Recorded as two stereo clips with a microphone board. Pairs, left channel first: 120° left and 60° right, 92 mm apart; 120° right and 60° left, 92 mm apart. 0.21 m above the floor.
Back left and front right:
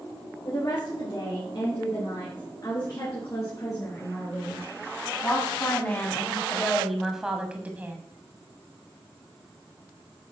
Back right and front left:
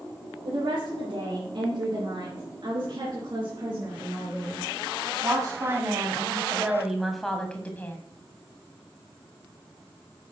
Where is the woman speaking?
75° left, 5 m; by 8.0 s 95° right, 1.5 m.